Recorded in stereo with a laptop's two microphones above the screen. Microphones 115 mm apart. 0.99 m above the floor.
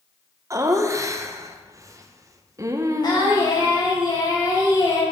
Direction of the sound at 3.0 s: 40° left (ahead or behind).